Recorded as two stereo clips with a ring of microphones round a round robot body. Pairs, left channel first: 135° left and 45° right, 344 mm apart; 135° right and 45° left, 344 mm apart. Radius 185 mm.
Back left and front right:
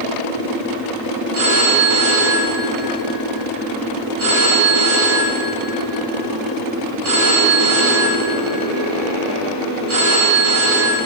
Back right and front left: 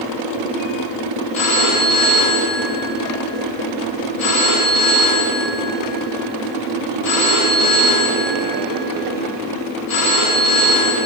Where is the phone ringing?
95° right, 6 m.